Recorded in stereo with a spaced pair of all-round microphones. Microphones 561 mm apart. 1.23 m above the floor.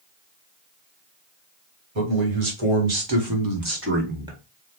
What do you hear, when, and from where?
1.9 s a man speaking: 70° right (ahead or behind), 1.6 m; by 4.4 s 5° right (ahead or behind), 1.2 m